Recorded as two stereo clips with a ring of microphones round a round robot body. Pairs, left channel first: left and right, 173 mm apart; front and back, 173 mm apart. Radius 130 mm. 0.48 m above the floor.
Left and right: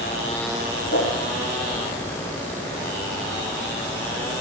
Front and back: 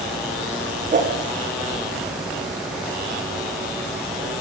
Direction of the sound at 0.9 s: 135° left.